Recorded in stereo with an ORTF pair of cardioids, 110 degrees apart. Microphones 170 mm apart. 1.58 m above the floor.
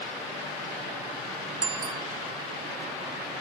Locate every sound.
1.6 s a bicycle bell: 25° right